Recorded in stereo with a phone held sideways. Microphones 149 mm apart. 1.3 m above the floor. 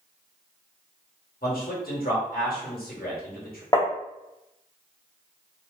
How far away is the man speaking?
About 1.3 m.